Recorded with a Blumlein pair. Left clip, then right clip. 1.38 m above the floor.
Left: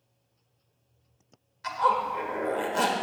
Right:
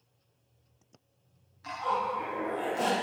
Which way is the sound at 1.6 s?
30° left.